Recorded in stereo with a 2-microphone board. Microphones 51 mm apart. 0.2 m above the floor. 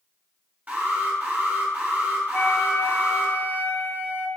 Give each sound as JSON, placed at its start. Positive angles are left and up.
{"t": 0.7, "sound": "an alarm", "side_deg": -35, "distance_m": 2.5}
{"t": 2.3, "sound": "a flute", "side_deg": 35, "distance_m": 0.6}